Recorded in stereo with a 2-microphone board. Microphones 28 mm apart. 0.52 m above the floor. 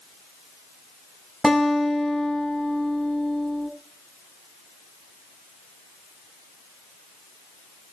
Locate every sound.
1.4 s a guitar: 15° left (ahead or behind), 5 m